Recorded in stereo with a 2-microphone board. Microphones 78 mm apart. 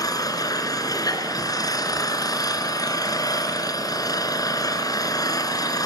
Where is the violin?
No violin in this recording.